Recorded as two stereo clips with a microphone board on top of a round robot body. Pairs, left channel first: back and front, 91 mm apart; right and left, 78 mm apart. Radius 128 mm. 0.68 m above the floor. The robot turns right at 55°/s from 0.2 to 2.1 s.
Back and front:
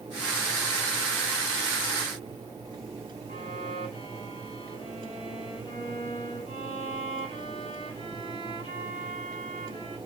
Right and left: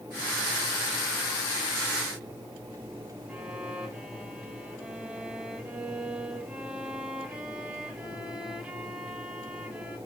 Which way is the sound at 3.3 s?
170° left.